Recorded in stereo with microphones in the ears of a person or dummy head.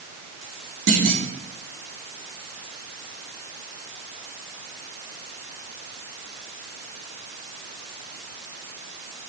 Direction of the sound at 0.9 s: 65° right (ahead or behind).